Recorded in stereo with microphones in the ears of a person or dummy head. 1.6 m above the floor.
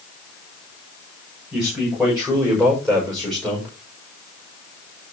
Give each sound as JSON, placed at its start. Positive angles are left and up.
{"t": 1.5, "sound": "a man speaking", "side_deg": -5, "distance_m": 6.0}